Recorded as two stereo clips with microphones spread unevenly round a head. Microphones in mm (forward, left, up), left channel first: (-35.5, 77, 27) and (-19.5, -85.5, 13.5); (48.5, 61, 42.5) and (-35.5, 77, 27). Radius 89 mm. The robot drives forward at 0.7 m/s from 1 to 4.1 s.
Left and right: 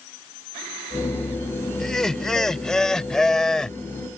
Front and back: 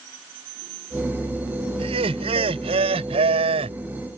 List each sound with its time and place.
1.8 s laughter: straight behind